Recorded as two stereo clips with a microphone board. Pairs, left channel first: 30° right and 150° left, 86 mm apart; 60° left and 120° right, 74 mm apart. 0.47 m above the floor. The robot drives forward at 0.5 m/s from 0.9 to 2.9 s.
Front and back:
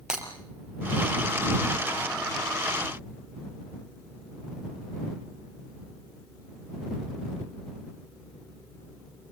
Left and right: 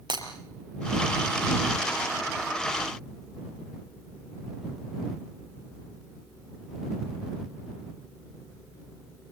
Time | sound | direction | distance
0.1 | breaking glass | 130° right | 4 m